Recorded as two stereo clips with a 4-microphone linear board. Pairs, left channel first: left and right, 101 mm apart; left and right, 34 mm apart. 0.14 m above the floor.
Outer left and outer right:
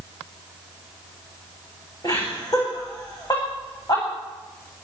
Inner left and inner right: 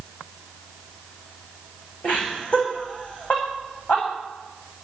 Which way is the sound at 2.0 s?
40° left (ahead or behind).